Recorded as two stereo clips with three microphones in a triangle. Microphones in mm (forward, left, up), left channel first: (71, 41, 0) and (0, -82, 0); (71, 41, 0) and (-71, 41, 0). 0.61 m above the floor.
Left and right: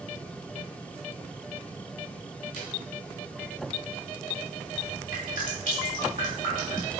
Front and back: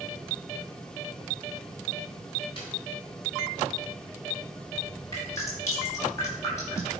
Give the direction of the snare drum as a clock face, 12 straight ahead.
10 o'clock.